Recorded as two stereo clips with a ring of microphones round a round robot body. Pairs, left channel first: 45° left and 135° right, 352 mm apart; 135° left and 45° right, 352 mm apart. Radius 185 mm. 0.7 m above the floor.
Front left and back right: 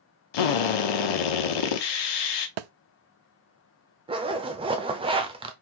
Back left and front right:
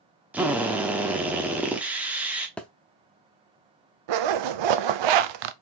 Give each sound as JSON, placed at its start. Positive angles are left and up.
{"t": 0.3, "sound": "a drill", "azimuth_deg": 40, "distance_m": 1.0}
{"t": 2.6, "sound": "a thud", "azimuth_deg": -140, "distance_m": 0.5}
{"t": 4.1, "sound": "a zipper", "azimuth_deg": -60, "distance_m": 0.6}